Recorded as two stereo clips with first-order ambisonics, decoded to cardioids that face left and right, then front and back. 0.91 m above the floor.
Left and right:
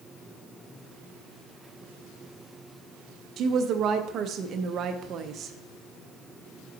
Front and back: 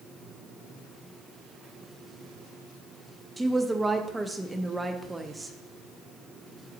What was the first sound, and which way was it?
A woman speaking, 105° right.